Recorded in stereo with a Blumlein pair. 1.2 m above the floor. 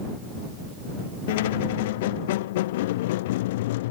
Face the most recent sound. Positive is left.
turn(degrees=55)